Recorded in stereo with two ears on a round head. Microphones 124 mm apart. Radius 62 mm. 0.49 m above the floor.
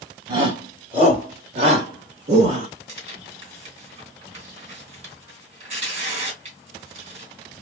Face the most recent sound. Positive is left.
turn(degrees=-45)  # may be behind; listen again after turning